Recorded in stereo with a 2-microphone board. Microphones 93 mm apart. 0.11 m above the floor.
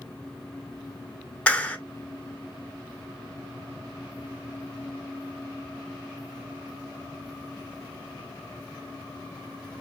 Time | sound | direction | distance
1.5 | a clap | 15° left (ahead or behind) | 1.0 m